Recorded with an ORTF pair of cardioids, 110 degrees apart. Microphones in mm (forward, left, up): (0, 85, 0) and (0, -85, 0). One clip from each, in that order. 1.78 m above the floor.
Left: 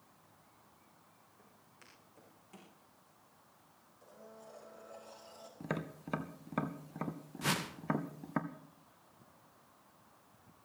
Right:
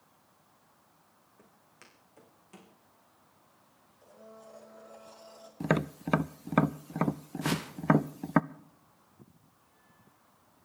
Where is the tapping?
45° right, 0.5 m.